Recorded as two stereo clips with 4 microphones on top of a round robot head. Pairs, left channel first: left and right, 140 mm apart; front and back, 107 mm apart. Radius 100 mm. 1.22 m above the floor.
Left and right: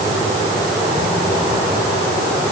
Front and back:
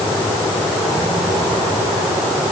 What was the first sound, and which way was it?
Only background noise.